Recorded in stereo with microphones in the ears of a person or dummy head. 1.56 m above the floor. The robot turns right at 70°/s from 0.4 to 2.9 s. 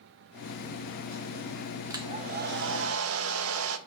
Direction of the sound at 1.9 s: 165° right.